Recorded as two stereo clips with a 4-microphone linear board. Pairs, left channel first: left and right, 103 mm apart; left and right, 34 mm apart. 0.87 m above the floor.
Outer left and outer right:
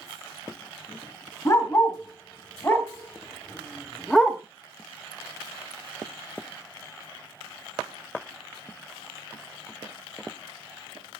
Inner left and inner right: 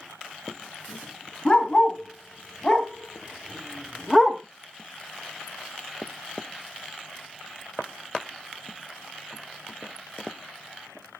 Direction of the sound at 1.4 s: 30° left (ahead or behind).